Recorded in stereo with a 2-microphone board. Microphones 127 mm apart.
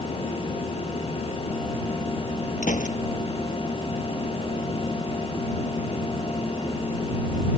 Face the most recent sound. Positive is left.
turn(degrees=80)